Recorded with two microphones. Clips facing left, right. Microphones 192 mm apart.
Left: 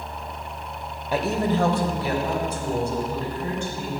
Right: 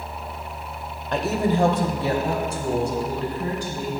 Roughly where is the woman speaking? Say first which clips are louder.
Right 1 dB; centre.